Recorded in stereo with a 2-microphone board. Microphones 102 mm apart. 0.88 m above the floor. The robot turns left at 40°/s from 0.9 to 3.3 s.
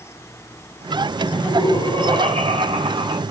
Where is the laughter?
45° right, 4 m; by 3.2 s 125° right, 4 m.